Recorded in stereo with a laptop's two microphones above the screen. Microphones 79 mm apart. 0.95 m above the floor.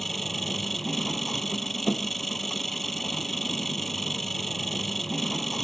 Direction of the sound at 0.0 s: Centre (ahead or behind).